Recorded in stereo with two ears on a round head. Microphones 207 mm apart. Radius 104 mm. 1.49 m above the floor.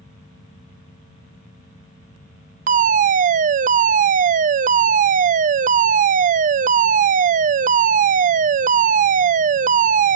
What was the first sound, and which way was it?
A fire alarm, 35° right (ahead or behind).